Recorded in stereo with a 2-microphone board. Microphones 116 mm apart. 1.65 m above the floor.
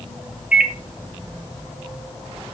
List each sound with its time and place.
0.5 s a microwave: 10° right (ahead or behind), 1.2 m